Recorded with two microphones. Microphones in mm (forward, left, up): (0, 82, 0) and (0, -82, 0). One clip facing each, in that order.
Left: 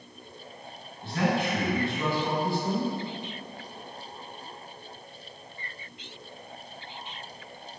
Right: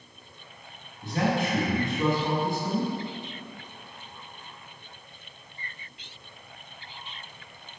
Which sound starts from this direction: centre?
A man speaking, at 1.0 s.